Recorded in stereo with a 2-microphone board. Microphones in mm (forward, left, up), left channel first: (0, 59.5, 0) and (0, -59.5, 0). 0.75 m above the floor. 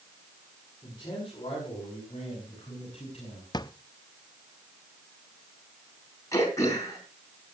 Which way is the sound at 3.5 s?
35° left (ahead or behind).